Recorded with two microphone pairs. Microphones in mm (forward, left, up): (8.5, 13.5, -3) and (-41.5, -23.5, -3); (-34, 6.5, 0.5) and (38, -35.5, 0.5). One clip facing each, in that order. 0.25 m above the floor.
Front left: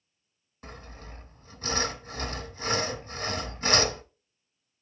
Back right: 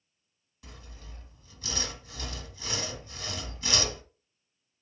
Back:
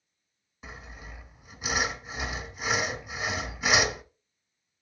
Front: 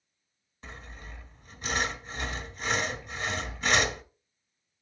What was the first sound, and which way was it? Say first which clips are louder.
Sawing: front left 7 dB, back 1 dB; 70° left.